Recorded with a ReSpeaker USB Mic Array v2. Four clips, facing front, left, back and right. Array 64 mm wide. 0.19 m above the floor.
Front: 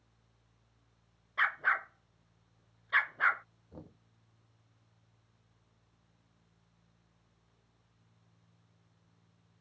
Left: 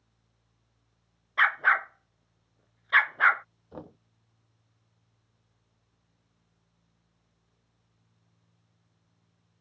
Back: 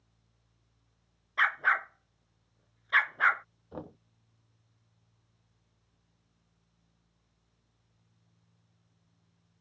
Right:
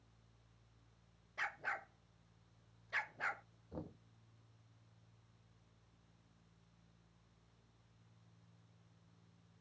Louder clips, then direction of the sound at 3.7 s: Left 5 dB, back 9 dB; 150° left.